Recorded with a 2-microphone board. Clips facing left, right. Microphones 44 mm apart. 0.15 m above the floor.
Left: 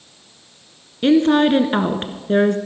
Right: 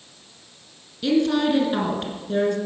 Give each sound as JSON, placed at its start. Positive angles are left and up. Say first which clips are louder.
{"t": 1.0, "sound": "a woman speaking", "louder": "left 6 dB", "side_deg": 45, "distance_m": 1.6}